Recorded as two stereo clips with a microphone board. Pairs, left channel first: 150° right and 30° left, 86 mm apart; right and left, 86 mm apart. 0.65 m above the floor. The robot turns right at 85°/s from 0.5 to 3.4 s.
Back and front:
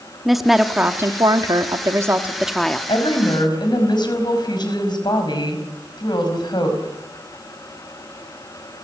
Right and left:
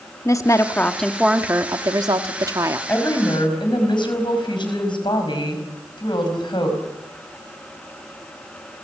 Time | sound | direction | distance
0.2 | a woman speaking | 60° right | 1.2 m
2.9 | a woman speaking | 160° right | 5 m